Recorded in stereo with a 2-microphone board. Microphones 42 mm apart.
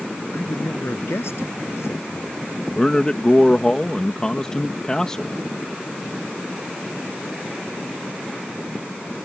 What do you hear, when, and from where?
0.3 s a man speaking: 80° left; by 2.5 s 85° left
2.7 s a man speaking: 15° left (ahead or behind)